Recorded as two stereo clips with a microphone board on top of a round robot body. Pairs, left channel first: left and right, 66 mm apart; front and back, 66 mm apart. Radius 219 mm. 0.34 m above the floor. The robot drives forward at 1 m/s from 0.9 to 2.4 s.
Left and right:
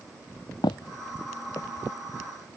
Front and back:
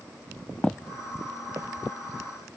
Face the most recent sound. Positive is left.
turn(degrees=150)